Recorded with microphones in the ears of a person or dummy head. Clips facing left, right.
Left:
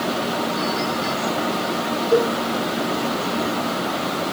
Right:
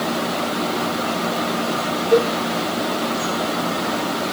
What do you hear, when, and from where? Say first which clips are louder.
2.1 s a cowbell: right 2 dB; 5° left (ahead or behind), 1.4 m